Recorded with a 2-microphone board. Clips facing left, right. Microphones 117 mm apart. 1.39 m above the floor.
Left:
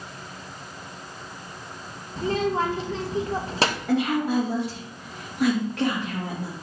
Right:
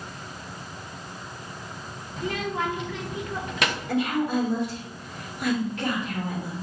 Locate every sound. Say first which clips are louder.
2.2 s a child speaking: left 5 dB; 30° left (ahead or behind), 0.8 m
3.9 s a woman speaking: left 1 dB; 85° left, 2.5 m